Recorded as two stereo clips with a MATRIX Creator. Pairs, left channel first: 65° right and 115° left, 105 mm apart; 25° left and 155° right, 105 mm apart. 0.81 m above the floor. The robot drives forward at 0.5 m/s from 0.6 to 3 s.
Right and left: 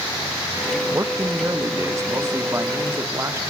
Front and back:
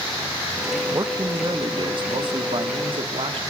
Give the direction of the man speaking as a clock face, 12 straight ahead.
7 o'clock.